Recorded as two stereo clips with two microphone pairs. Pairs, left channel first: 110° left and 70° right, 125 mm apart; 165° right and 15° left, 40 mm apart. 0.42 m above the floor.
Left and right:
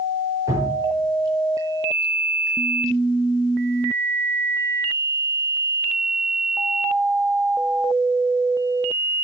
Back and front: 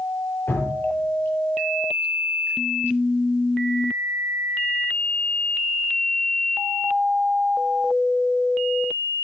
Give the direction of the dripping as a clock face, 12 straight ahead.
4 o'clock.